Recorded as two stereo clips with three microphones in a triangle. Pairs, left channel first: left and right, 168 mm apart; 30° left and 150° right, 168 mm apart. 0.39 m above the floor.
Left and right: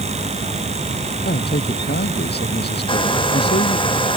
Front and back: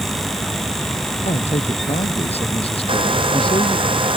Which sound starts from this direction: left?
A man speaking, at 1.2 s.